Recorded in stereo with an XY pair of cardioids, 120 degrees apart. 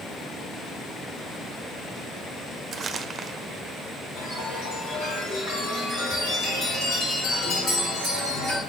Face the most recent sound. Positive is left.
turn(degrees=60)